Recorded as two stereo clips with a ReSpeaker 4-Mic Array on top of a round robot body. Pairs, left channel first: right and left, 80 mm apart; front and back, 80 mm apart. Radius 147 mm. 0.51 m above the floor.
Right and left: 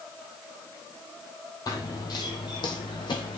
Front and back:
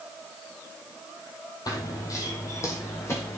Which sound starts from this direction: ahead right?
Running footsteps, at 1.7 s.